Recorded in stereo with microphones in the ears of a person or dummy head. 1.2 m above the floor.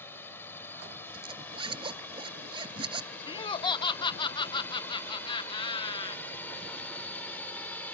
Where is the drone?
5° left (ahead or behind).